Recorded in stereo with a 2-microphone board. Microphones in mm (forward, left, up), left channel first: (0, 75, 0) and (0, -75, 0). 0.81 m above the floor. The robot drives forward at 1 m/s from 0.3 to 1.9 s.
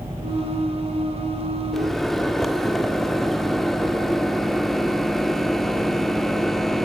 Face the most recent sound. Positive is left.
turn(degrees=0)  # may be behind; listen again after turning